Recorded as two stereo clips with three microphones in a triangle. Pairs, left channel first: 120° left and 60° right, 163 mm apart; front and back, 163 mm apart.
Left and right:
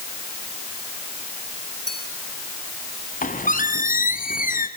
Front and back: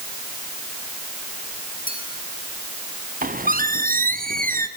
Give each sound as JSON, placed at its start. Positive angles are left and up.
{"t": 1.9, "sound": "a clink", "azimuth_deg": 35, "distance_m": 10.0}
{"t": 3.2, "sound": "a squeak", "azimuth_deg": 150, "distance_m": 1.8}